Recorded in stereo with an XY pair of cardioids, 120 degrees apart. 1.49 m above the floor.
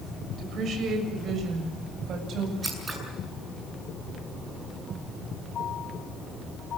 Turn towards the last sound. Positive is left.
turn(degrees=-25)